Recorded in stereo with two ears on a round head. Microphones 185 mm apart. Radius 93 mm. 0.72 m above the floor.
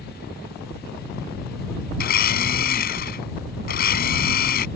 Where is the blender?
45° left (ahead or behind).